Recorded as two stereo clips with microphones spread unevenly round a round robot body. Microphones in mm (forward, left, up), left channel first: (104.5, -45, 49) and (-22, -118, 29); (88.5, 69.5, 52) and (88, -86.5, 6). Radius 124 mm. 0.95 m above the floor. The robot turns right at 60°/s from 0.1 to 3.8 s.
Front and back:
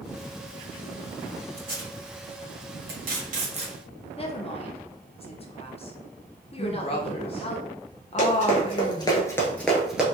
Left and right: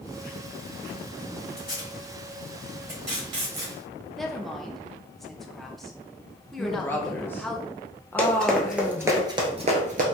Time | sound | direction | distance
1.6 | tape being pulled | 130° left | 1.5 m
4.2 | a woman speaking | 15° right | 0.9 m
6.6 | a woman speaking | 5° right | 0.6 m
8.2 | running footsteps | 25° left | 1.5 m